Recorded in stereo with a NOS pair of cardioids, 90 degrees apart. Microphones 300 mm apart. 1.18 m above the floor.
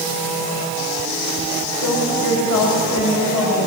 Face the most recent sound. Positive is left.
turn(degrees=65)